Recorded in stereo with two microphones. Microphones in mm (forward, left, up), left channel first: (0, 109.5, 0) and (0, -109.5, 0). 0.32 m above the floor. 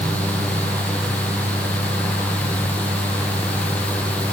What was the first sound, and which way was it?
Only background noise.